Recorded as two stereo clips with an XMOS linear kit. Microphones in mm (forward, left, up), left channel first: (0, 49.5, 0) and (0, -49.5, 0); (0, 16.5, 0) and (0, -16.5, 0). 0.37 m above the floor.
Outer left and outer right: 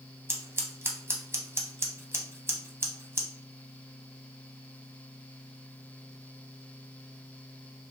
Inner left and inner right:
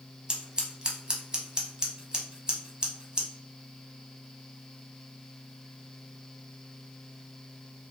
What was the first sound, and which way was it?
Scissors, 25° right (ahead or behind).